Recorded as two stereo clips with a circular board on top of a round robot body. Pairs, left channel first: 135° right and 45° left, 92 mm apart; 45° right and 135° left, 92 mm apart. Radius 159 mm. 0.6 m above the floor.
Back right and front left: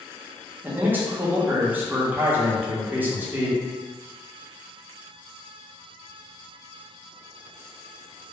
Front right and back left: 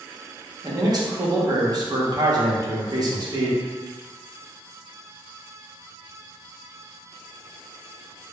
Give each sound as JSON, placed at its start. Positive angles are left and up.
{"t": 0.6, "sound": "a man speaking", "azimuth_deg": 110, "distance_m": 1.0}